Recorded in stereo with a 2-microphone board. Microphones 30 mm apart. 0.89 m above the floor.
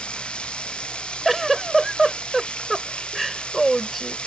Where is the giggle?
5° left (ahead or behind).